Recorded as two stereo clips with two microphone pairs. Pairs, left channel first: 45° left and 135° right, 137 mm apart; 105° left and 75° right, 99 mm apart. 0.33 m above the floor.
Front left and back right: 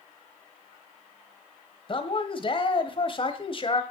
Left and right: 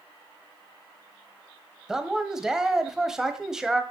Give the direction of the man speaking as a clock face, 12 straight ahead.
12 o'clock.